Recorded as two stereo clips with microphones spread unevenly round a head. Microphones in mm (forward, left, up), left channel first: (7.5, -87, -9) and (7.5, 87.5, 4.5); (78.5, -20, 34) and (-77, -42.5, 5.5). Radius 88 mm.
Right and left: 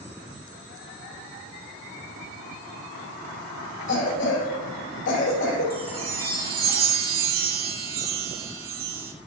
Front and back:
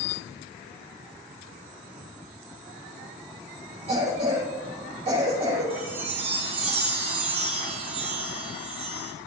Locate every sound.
3.9 s a cough: 120° right, 3 m
5.7 s a chime: 130° left, 1.8 m